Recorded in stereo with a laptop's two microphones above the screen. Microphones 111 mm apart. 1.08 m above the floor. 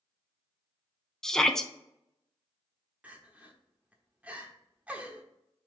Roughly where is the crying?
Centre.